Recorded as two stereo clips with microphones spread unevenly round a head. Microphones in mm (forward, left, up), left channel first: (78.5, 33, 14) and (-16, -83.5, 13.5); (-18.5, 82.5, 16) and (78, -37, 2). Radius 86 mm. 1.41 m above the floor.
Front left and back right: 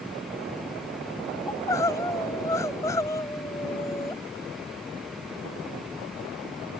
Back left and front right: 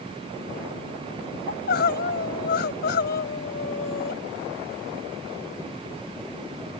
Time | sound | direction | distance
1.5 | crying | 125° left | ?